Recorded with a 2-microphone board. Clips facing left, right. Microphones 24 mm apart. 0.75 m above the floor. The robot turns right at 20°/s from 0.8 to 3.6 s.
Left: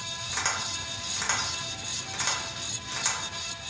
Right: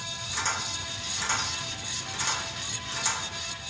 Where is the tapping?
25° left (ahead or behind), 0.8 m; by 3.2 s 15° left (ahead or behind), 0.8 m.